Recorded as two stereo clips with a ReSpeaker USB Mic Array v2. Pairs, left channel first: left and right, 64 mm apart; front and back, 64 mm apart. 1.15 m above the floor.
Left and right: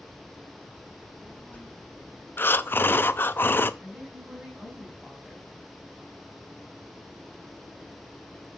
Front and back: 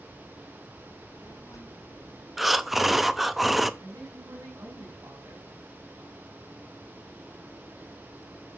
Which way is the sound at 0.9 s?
10° left.